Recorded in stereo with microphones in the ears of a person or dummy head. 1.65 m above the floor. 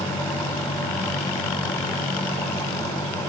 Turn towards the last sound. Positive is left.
No sound to turn to.